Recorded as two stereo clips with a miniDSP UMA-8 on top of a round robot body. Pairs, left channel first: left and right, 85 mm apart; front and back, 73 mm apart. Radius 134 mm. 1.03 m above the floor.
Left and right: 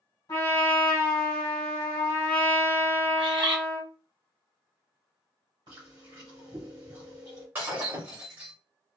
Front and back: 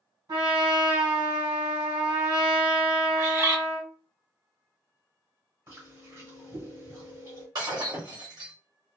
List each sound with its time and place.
0.3 s a trumpet: 140° left, 1.5 m
3.2 s a bird: 125° right, 0.8 m
5.7 s chewing: 130° right, 1.3 m
7.5 s breaking glass: 155° right, 1.1 m